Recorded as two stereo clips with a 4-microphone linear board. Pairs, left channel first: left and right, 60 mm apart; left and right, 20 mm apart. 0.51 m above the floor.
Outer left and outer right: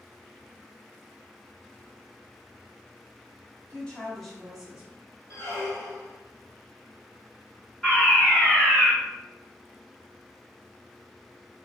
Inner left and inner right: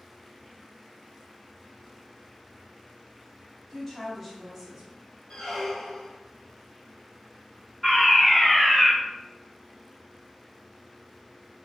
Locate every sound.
3.7 s a woman speaking: 20° left (ahead or behind), 0.9 m; by 4.9 s 15° right (ahead or behind), 0.9 m
5.3 s a squeak: 50° left (ahead or behind), 1.2 m
7.8 s a fire alarm: 20° left (ahead or behind), 1.7 m